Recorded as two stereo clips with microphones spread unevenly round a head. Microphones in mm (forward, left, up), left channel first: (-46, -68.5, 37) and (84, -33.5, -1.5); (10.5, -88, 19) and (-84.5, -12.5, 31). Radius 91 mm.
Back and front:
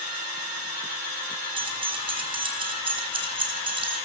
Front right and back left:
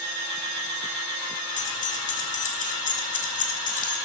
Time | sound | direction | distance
1.6 | keys jangling | 40° right | 3 m